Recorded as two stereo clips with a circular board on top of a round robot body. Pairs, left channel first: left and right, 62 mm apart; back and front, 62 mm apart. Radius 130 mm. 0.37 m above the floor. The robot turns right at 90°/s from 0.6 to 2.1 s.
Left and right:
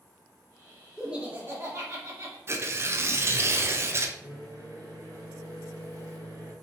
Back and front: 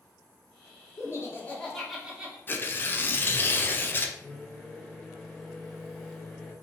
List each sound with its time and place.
1.0 s laughter: 170° right, 1.4 m; by 2.4 s 70° right, 1.4 m
2.5 s tearing paper: 130° right, 0.6 m
4.2 s a microwave: 105° right, 1.9 m